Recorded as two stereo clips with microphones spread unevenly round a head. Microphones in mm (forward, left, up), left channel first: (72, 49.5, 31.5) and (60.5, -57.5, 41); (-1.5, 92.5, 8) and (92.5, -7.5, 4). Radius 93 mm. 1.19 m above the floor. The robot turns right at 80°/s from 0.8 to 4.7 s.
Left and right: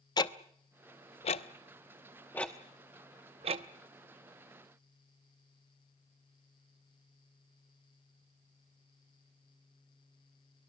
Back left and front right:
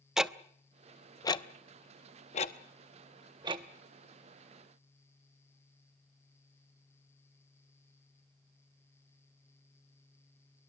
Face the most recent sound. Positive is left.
turn(degrees=-10)